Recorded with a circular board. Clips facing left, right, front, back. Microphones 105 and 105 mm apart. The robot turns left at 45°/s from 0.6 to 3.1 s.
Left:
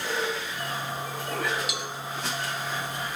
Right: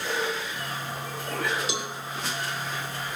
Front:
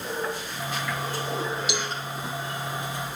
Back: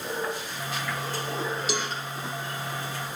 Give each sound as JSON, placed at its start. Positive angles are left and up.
{"t": 1.7, "sound": "a cowbell", "azimuth_deg": -140, "distance_m": 1.8}